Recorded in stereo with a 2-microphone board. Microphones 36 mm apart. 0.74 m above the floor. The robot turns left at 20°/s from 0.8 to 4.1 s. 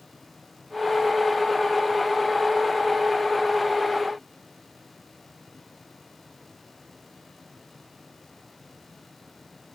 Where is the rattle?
I don't hear a rattle.